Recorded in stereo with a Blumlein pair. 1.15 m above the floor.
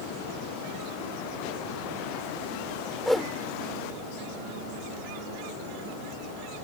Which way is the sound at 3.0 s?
Straight ahead.